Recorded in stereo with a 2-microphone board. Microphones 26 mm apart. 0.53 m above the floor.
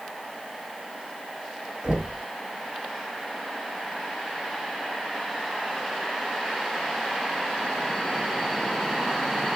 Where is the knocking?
40° right (ahead or behind), 2 m.